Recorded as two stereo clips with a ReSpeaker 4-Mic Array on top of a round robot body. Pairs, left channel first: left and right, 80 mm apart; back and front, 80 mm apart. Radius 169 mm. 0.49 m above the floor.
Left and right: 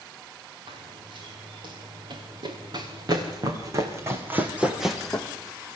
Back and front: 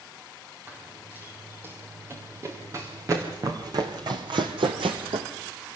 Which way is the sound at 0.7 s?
65° right.